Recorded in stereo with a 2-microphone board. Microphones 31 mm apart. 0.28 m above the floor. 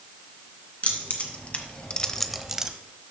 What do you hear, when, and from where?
0.8 s keys jangling: 45° left (ahead or behind), 2 m; by 2.7 s 25° right (ahead or behind), 1.0 m